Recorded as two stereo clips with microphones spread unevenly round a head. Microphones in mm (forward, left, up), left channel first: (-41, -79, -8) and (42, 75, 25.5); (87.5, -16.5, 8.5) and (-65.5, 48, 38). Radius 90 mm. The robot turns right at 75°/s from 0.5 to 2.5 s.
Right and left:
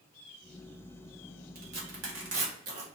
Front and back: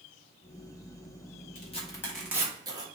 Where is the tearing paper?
20° left, 1.7 m; by 2.9 s 90° left, 1.7 m.